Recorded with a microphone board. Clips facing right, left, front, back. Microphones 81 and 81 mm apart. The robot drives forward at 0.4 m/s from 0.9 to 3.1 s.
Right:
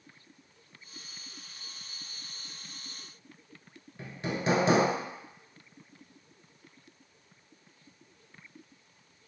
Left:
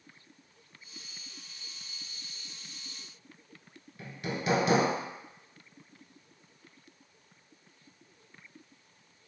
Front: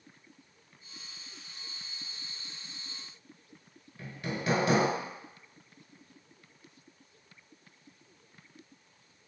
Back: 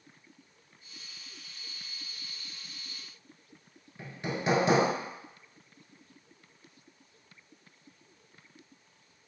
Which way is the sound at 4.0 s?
130° right.